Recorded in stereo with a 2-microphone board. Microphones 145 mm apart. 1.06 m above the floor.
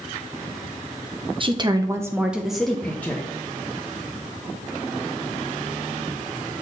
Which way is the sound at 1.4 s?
35° right (ahead or behind).